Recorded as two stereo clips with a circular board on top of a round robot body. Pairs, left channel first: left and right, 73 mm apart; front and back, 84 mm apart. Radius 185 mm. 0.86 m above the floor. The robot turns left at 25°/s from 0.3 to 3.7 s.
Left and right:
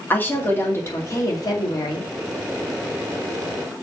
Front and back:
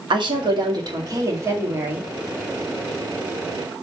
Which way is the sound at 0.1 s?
155° left.